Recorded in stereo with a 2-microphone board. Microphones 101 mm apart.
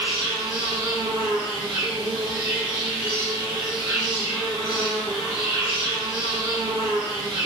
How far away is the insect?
About 1.1 m.